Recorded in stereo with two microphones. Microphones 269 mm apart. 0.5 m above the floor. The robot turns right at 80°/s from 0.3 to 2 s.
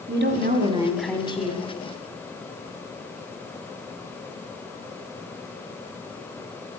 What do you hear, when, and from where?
0.1 s a woman speaking: 55° right, 1.8 m; by 1.6 s 50° left, 1.8 m